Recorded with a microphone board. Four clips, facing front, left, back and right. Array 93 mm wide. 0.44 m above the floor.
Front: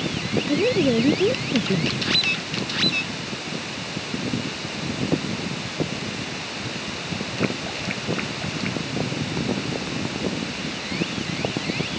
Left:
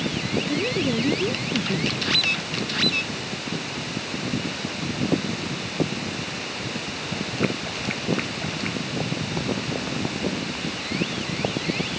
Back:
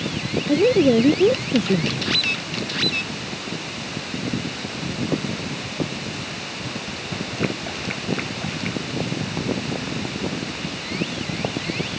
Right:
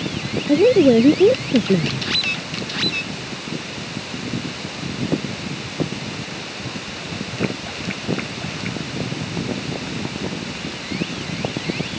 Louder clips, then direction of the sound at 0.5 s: Right 15 dB, back 5 dB; 105° right.